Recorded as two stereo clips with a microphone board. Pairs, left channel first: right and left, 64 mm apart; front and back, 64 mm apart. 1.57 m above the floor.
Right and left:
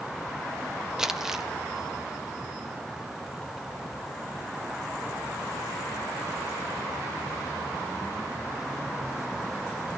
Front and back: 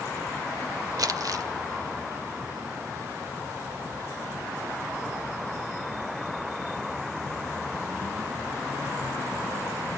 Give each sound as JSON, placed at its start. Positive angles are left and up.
{"t": 1.0, "sound": "crumpling", "azimuth_deg": 170, "distance_m": 1.4}